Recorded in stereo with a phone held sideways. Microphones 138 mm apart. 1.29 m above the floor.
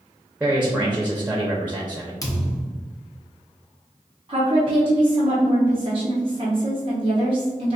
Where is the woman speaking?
40° right (ahead or behind), 0.7 m.